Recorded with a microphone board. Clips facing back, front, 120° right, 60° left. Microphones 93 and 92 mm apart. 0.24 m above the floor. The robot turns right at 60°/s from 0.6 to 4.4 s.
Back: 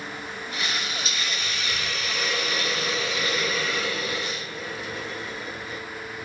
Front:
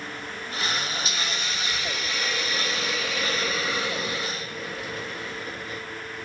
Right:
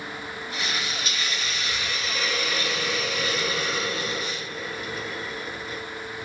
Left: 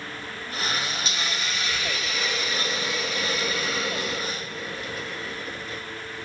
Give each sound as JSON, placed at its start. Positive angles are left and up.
{"t": 1.1, "sound": "a hiss", "azimuth_deg": 125, "distance_m": 1.2}